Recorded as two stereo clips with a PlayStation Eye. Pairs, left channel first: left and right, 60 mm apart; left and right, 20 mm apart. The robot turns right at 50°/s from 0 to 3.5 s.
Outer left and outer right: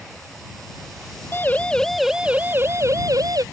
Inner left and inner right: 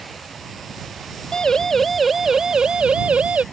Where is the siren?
35° left (ahead or behind); by 3.4 s 80° right.